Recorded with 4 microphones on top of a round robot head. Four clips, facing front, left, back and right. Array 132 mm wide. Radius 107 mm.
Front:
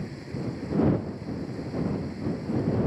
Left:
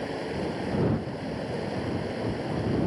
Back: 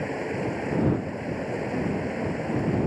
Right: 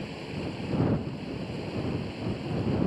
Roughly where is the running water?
Behind left.